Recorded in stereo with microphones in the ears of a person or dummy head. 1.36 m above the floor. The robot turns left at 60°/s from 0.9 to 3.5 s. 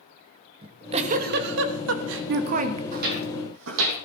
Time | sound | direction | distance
0.6 | a giggle | 30° right | 1.3 m
2.9 | footsteps | 45° right (ahead or behind) | 3.5 m